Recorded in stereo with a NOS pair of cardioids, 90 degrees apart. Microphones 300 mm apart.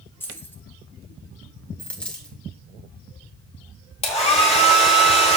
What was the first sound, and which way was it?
Keys jangling, 5° left.